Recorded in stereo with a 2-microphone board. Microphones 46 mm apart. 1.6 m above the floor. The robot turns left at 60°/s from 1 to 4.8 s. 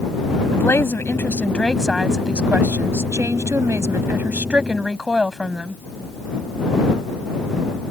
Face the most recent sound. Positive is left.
turn(degrees=-170)